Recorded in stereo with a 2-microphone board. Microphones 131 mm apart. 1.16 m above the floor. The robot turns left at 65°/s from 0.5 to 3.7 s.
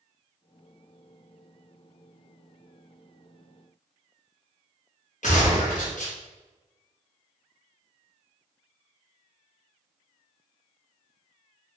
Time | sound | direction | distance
5.2 | a gunshot | 70° left (ahead or behind) | 1.1 m